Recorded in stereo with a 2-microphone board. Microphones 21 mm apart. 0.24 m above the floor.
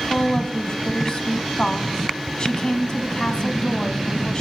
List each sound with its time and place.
0.1 s a woman speaking: 45° left (ahead or behind), 2 m